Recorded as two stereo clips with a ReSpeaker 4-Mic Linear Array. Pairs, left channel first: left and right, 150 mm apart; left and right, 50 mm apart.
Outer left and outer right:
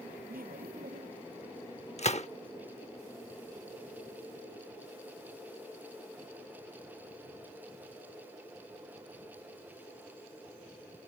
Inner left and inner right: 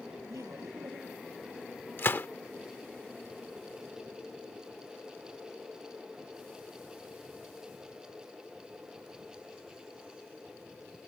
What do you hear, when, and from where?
0.3 s laughter: 75° right (ahead or behind)
2.0 s a gunshot: 45° left (ahead or behind)